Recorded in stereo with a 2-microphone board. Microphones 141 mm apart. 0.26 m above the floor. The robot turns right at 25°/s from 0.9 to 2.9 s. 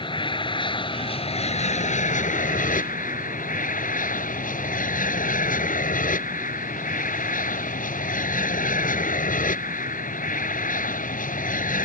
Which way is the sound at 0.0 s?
35° left.